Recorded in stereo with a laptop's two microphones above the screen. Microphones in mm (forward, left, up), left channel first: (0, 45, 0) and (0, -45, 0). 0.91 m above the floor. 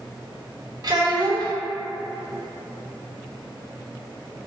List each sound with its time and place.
0.8 s a child speaking: 50° right (ahead or behind), 0.9 m